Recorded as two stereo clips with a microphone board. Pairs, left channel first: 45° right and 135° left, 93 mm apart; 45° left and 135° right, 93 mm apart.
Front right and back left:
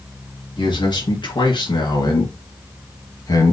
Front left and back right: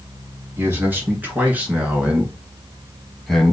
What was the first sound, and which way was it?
A man speaking, 70° right.